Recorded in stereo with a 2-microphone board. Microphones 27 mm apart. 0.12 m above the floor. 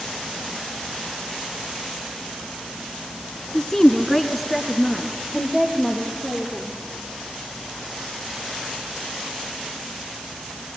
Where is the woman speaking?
20° left (ahead or behind), 1.3 m; by 6.8 s 15° right (ahead or behind), 4 m.